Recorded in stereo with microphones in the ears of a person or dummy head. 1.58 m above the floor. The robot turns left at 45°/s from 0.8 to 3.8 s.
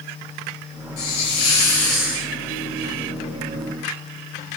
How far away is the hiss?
About 8.5 m.